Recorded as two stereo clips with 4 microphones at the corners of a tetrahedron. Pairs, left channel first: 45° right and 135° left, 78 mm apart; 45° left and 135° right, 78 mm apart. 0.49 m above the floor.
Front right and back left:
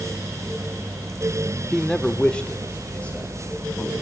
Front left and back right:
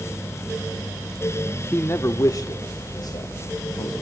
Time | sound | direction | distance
1.7 | a man speaking | 35° left | 0.9 m